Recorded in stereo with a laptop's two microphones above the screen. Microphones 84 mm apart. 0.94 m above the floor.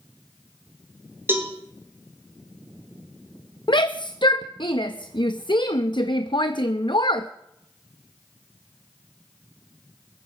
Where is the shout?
65° left (ahead or behind), 0.7 m.